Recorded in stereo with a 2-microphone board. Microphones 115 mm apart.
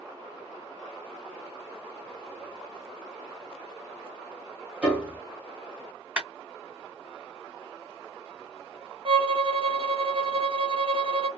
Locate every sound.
4.8 s a piano: 10° right (ahead or behind), 1.0 m
6.2 s a clap: 15° right (ahead or behind), 1.3 m
9.1 s a violin: 55° right (ahead or behind), 0.5 m